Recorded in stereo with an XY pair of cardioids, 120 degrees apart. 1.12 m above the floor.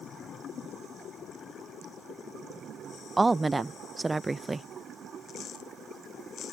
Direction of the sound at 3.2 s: 15° right.